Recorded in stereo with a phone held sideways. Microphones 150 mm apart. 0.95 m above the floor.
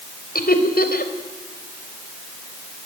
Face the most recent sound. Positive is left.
turn(degrees=85)